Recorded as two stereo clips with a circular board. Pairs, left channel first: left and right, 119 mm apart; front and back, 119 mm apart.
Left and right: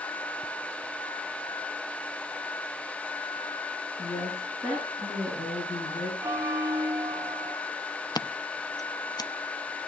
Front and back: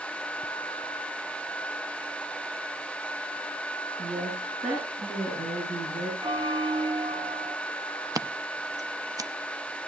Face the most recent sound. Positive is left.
turn(degrees=130)